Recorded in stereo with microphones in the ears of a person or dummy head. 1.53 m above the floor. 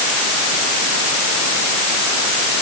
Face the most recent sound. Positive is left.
No sound to turn to.